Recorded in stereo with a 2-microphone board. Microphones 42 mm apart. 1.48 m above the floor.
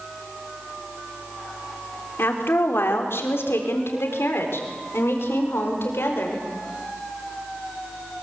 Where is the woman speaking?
65° left (ahead or behind), 4 m; by 6.4 s 70° left (ahead or behind), 5.5 m.